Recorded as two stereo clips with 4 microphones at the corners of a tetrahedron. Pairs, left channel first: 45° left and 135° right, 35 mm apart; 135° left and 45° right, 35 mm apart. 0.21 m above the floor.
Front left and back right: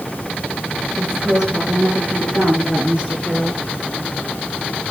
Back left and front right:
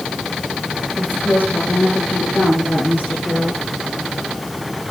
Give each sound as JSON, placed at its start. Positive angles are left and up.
{"t": 1.0, "sound": "a woman speaking", "azimuth_deg": 155, "distance_m": 8.0}